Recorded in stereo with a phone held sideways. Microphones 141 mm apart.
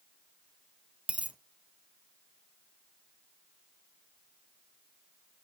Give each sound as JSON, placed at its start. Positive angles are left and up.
{"t": 1.1, "sound": "a dropped coin", "side_deg": -10, "distance_m": 0.6}